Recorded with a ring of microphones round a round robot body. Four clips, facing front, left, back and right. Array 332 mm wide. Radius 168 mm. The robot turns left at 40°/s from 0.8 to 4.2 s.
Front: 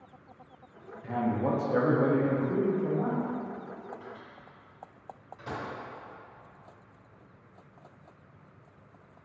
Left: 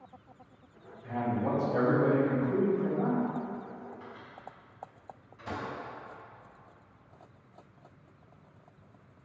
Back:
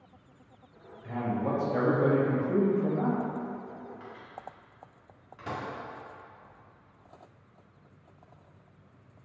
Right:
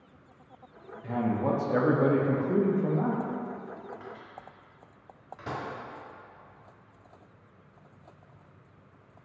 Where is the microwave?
115° right, 1.4 m; by 5.6 s 125° right, 1.4 m.